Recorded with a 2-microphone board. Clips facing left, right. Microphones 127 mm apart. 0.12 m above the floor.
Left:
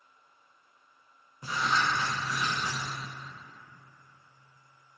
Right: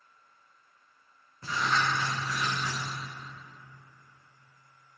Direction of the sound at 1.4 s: 15° left (ahead or behind).